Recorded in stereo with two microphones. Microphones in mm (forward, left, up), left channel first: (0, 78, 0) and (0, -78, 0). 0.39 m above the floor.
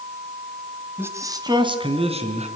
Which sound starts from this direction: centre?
A man speaking, at 1.0 s.